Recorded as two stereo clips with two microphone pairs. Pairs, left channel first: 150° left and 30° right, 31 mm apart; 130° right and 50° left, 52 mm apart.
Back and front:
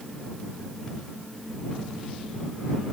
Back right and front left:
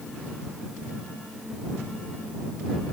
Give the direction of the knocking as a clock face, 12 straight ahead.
I don't hear knocking.